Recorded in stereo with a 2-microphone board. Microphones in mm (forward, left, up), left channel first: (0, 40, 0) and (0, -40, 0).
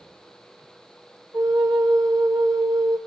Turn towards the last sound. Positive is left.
turn(degrees=-50)  # may be behind; listen again after turning